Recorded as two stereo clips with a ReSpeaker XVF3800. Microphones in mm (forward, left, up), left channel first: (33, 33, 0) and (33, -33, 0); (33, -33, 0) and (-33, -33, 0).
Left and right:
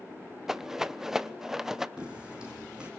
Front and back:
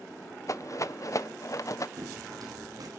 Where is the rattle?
10° right, 0.8 m.